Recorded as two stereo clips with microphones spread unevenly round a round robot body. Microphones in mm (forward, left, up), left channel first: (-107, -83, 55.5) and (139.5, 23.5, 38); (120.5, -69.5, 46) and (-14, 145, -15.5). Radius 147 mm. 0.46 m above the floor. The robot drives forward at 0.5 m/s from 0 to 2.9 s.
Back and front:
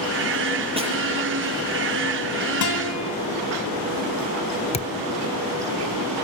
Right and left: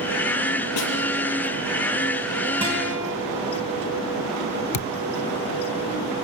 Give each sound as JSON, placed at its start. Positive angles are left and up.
{"t": 0.8, "sound": "a snare drum", "azimuth_deg": -45, "distance_m": 6.5}
{"t": 2.6, "sound": "a guitar", "azimuth_deg": -160, "distance_m": 4.0}
{"t": 4.7, "sound": "a thud", "azimuth_deg": -90, "distance_m": 0.5}